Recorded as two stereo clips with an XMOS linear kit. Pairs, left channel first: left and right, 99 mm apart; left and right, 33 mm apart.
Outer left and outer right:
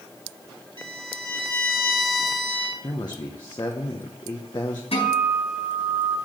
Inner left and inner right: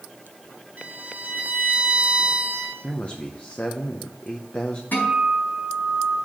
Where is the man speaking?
45° left (ahead or behind), 0.9 m.